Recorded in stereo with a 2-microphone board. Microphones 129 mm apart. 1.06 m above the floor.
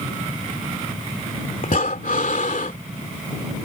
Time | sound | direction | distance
1.6 | breathing | 75° left (ahead or behind) | ?